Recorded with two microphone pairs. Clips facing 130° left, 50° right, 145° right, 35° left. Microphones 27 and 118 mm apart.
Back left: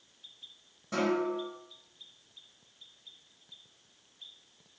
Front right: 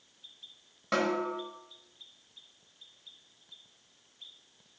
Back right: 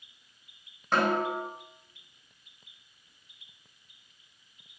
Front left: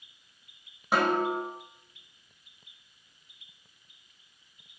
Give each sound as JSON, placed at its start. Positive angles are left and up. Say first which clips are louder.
{"t": 0.9, "sound": "a snare drum", "louder": "even, front left 1 dB", "azimuth_deg": -40, "distance_m": 3.0}